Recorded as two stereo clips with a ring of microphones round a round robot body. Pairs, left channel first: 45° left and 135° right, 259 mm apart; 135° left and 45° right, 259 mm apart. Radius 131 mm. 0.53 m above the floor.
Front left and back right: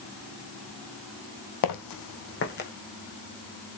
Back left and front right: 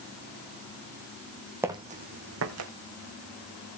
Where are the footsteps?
35° left, 1.5 m; by 2.7 s 10° right, 2 m.